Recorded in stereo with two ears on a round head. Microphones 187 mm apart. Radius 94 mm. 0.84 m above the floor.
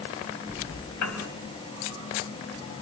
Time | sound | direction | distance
1.0 | a piano | 75° left (ahead or behind) | 3.5 m